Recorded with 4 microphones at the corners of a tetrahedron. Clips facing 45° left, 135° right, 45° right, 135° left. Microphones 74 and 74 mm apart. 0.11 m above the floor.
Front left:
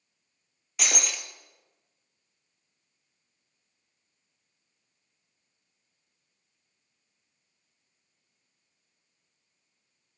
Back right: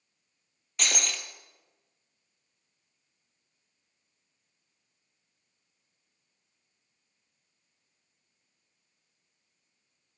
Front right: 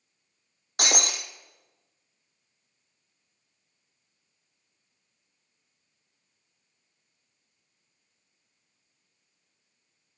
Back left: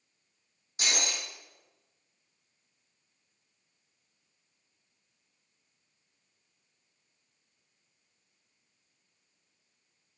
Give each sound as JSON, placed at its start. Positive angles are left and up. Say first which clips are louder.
{"t": 0.8, "sound": "breaking glass", "louder": "front left 1 dB, front right 5 dB", "azimuth_deg": -40, "distance_m": 1.8}